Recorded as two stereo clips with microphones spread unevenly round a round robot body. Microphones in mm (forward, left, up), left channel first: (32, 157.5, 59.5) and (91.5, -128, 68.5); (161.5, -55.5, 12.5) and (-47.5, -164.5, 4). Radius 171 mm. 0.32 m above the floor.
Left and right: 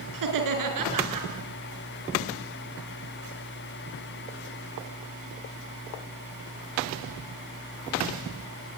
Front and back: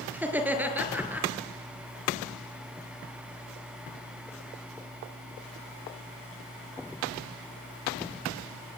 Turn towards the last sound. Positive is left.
turn(degrees=-70)